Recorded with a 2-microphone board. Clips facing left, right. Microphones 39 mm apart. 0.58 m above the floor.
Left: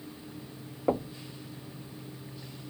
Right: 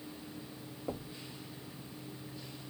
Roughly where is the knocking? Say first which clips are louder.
Left 13 dB; left.